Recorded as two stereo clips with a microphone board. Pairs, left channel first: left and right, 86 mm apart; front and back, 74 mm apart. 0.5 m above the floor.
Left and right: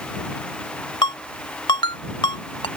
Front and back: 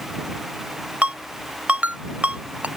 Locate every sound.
1.0 s a ringtone: 110° left